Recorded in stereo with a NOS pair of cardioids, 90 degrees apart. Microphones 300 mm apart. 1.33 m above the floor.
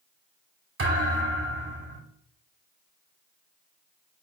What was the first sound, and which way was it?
A thud, 45° right.